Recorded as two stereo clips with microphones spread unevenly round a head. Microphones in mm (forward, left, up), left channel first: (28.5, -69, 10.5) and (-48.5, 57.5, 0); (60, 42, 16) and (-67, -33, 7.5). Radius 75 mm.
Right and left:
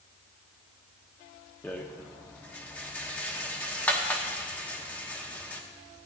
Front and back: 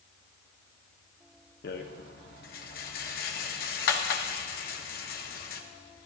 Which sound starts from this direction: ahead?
A rattle, at 1.6 s.